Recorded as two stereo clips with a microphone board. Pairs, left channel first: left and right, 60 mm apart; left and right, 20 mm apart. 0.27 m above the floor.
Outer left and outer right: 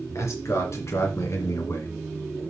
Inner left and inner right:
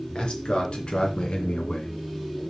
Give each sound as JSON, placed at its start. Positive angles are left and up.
{"t": 0.1, "sound": "a man speaking", "side_deg": 55, "distance_m": 3.5}